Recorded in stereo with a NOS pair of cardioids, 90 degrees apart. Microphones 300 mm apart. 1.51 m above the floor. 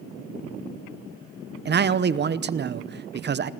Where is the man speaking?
35° right, 0.9 m.